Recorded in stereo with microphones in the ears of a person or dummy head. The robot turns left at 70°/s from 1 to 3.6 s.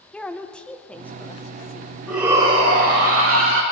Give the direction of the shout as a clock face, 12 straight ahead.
12 o'clock.